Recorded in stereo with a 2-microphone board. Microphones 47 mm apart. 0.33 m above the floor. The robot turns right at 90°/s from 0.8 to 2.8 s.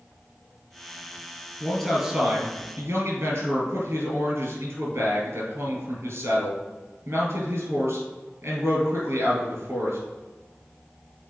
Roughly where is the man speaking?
Behind left.